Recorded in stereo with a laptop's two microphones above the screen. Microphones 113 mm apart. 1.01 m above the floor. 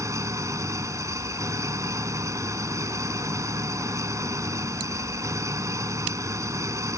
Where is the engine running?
25° right (ahead or behind).